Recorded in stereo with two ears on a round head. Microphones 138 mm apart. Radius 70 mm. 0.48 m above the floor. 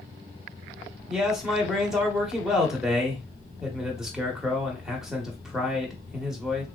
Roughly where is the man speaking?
Centre.